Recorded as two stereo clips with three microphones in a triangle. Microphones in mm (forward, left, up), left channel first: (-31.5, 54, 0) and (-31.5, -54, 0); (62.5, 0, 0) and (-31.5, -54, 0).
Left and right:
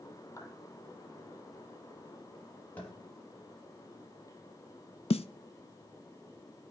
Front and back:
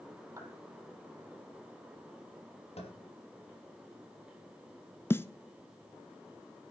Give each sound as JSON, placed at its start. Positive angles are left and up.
{"t": 0.4, "sound": "a clap", "azimuth_deg": 150, "distance_m": 4.5}
{"t": 2.8, "sound": "tapping", "azimuth_deg": 15, "distance_m": 4.5}
{"t": 5.1, "sound": "a snare drum", "azimuth_deg": 95, "distance_m": 0.5}